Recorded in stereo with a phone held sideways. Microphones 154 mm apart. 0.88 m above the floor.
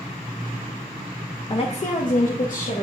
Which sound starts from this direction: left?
A woman speaking, at 1.5 s.